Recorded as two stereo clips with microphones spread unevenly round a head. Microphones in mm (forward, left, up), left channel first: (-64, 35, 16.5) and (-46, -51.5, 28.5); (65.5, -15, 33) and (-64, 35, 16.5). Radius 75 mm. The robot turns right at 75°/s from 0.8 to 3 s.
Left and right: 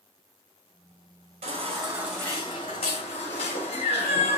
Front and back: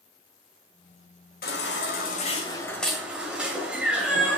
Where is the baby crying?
45° right, 2.5 m; by 4.4 s 75° left, 2.5 m.